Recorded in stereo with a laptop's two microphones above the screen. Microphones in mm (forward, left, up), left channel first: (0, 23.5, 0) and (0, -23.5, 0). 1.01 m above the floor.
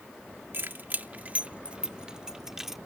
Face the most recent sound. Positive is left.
turn(degrees=-5)  # may be behind; listen again after turning